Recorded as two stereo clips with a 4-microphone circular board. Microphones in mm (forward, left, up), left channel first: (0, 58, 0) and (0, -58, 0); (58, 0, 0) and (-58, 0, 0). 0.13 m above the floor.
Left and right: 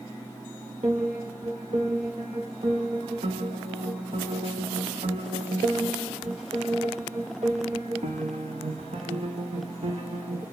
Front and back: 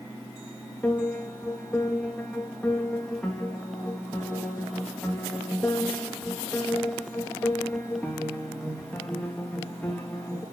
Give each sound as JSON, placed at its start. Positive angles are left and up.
{"t": 0.8, "sound": "a piano", "azimuth_deg": -80, "distance_m": 2.0}